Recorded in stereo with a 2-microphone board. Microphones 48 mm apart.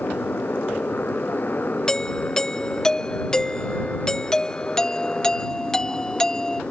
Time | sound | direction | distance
0.0 | a motorcycle | 40° left (ahead or behind) | ?
1.9 | a doorbell | 15° left (ahead or behind) | ?